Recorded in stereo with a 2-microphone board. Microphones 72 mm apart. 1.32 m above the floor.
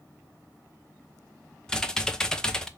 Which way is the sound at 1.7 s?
10° left (ahead or behind).